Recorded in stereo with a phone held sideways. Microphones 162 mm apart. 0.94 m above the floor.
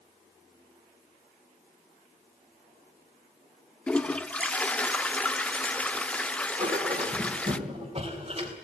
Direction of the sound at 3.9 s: 5° left (ahead or behind).